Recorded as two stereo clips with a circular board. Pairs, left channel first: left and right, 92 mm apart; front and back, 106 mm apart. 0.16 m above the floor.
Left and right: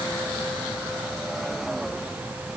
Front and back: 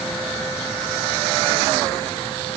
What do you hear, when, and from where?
Only background noise.